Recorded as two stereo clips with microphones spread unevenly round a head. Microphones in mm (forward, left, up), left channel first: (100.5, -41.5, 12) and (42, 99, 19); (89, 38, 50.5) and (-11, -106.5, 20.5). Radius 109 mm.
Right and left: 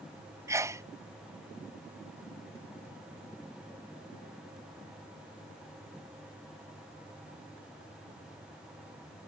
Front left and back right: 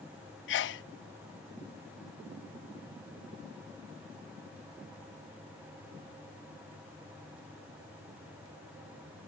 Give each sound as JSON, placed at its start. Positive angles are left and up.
{"t": 0.5, "sound": "a sneeze", "azimuth_deg": 40}